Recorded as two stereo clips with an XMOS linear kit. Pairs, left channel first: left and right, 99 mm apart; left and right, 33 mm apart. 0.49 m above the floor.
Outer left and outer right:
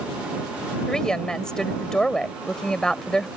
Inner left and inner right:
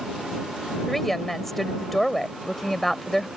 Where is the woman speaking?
5° left (ahead or behind).